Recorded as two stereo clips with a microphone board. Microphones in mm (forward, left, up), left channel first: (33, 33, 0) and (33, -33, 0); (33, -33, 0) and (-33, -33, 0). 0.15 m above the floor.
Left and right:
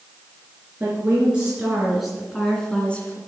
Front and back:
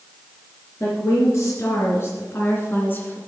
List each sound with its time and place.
0.8 s a woman speaking: 30° right, 2.5 m; by 3.2 s 40° left, 1.9 m